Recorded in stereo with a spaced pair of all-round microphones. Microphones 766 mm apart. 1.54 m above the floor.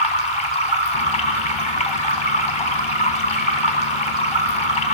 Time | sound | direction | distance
0.0 | running water | 40° left (ahead or behind) | 2 m